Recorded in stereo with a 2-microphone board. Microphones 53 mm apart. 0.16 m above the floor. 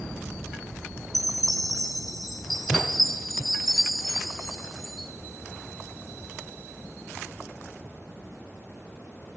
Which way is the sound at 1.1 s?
5° left (ahead or behind).